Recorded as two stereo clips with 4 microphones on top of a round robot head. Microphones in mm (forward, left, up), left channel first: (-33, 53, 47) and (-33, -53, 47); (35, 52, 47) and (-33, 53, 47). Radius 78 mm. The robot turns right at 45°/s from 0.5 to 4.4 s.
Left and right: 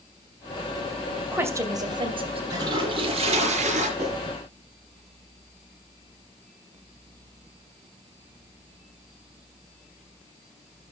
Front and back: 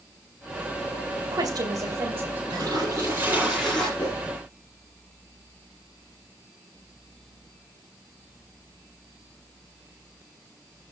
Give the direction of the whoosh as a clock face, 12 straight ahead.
3 o'clock.